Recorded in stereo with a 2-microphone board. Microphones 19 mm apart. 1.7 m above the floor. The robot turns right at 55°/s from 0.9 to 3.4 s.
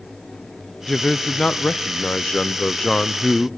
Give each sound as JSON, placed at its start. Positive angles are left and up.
{"t": 0.9, "sound": "a man speaking", "azimuth_deg": 35, "distance_m": 0.6}